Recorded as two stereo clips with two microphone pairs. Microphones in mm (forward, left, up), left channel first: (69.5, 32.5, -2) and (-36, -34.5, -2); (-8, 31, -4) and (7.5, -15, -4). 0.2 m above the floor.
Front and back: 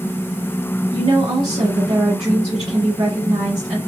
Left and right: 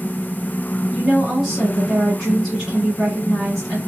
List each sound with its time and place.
0.9 s a woman speaking: 155° right, 2 m